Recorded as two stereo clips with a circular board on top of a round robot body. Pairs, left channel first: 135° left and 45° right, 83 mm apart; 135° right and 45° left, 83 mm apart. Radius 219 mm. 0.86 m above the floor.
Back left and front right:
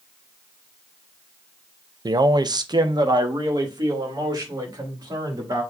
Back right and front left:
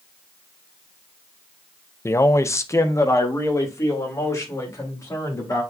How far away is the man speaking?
About 0.7 m.